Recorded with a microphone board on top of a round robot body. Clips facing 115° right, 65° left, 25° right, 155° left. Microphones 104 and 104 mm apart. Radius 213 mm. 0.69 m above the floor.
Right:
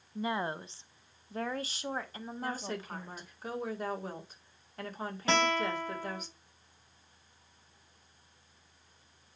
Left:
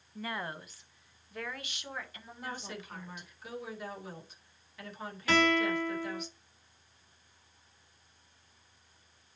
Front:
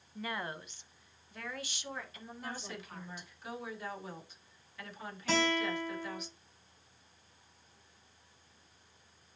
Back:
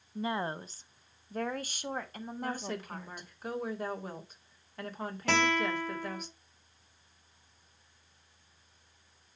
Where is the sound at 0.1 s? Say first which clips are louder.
Right 5 dB, back 6 dB; 160° right, 0.8 m; by 3.3 s 165° right, 2 m.